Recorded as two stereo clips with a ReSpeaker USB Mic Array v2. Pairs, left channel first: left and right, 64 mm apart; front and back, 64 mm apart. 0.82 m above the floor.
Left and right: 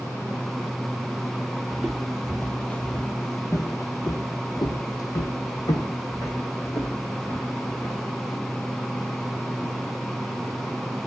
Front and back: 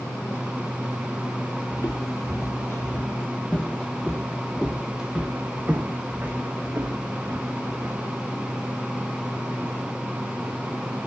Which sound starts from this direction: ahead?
Footsteps, at 1.7 s.